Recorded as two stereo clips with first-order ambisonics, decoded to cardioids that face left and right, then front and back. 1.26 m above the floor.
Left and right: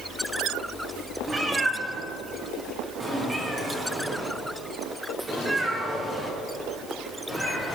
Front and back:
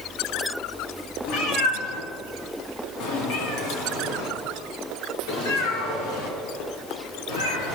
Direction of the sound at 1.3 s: 15° right.